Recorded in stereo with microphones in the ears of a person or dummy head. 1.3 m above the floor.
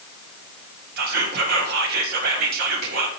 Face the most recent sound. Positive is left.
turn(degrees=-55)  # may be behind; listen again after turning